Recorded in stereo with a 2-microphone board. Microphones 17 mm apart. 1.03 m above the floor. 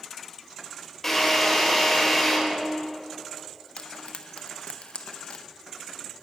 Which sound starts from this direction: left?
Frying, at 3.8 s.